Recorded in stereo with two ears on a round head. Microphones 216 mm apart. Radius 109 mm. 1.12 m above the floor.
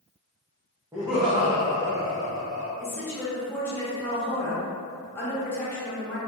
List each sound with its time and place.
0.9 s laughter: 15° right (ahead or behind), 0.6 m; by 2.7 s 20° right (ahead or behind), 1.5 m
2.8 s a woman speaking: 10° left (ahead or behind), 1.0 m